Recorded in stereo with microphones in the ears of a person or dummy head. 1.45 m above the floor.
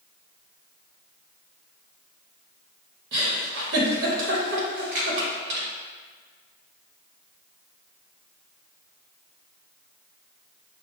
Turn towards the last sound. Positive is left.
turn(degrees=-10)  # may be behind; listen again after turning